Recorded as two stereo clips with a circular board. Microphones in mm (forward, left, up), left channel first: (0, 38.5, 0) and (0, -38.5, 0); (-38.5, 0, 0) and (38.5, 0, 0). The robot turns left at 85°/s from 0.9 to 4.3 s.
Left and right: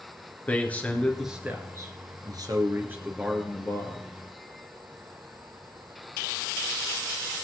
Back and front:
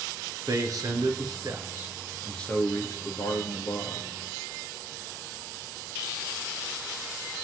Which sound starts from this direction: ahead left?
A man speaking, at 0.5 s.